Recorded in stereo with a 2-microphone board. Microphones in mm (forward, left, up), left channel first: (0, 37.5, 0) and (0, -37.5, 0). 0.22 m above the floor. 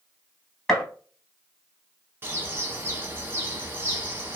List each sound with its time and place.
0.7 s a gunshot: 5° left (ahead or behind), 0.8 m
2.2 s a bird: 30° right (ahead or behind), 0.7 m